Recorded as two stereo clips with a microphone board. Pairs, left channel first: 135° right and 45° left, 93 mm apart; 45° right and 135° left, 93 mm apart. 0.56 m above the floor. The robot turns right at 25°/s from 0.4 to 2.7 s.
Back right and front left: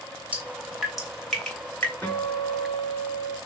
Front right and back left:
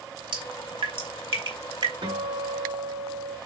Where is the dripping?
120° left, 3 m; by 1.9 s 155° left, 3 m.